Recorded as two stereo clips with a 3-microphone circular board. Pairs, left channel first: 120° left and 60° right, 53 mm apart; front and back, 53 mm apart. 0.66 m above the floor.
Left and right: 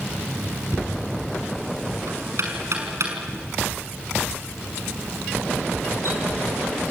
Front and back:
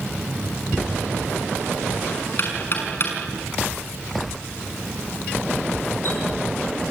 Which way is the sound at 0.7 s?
40° right.